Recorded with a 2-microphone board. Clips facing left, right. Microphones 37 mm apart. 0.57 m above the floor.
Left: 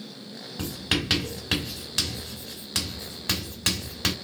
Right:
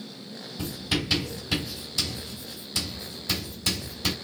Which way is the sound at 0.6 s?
55° left (ahead or behind).